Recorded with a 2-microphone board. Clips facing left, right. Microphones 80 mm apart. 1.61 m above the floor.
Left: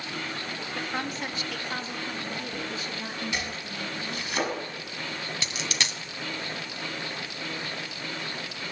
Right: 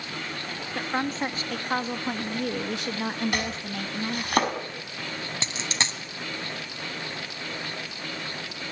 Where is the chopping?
55° right (ahead or behind), 5.5 m.